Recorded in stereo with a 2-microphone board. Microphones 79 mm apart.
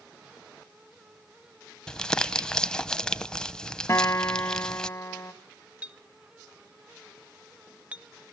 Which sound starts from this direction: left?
A guitar, at 3.9 s.